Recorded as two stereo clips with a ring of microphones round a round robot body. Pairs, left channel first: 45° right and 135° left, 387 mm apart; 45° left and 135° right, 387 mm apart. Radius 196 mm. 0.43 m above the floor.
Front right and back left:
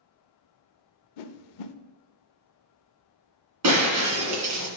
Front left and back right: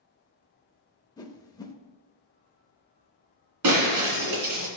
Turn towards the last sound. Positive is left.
turn(degrees=180)